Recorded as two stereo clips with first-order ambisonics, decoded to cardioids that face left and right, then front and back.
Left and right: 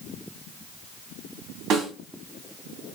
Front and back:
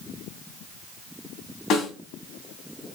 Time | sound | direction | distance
1.7 | a snare drum | 45° right | 2.5 m